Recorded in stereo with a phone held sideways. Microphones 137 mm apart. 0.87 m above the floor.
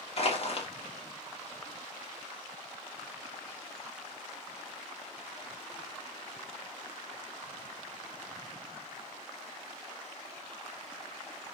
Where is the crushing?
50° left (ahead or behind), 1.0 m.